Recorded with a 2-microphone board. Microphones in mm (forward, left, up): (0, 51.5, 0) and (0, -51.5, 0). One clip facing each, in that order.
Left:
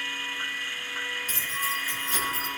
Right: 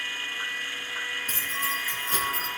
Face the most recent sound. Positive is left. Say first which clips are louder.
# right 1 dB
turn(degrees=-50)  # may be behind; listen again after turning